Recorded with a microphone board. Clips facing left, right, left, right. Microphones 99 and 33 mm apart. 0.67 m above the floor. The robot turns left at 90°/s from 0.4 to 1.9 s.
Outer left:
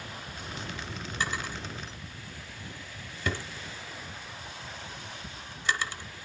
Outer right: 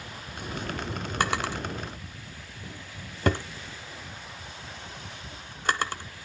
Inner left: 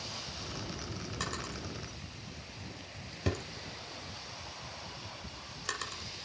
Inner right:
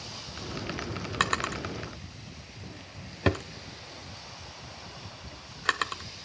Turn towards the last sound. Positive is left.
turn(degrees=-50)  # may be behind; listen again after turning